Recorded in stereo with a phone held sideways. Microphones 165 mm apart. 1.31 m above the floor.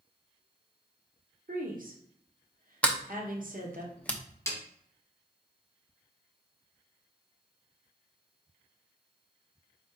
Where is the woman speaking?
55° right (ahead or behind), 1.1 m.